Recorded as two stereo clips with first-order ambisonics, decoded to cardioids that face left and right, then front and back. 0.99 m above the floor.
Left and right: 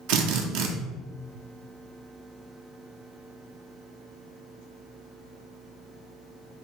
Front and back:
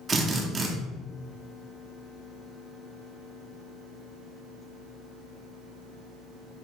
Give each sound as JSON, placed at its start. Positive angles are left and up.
{"t": 0.1, "sound": "a drill", "azimuth_deg": -110, "distance_m": 0.8}